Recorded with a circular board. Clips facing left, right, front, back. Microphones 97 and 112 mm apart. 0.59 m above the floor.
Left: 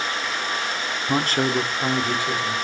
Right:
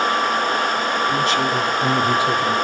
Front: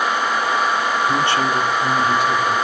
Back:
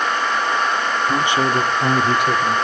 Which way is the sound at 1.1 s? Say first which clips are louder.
Left 2 dB, back 3 dB; 100° left.